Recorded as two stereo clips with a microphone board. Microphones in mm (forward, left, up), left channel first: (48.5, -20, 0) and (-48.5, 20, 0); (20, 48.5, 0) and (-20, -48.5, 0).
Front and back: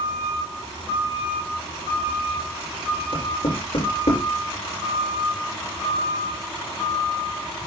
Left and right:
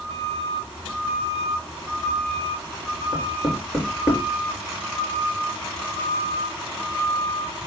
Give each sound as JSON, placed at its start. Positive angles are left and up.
{"t": 3.1, "sound": "knocking", "azimuth_deg": -30, "distance_m": 4.0}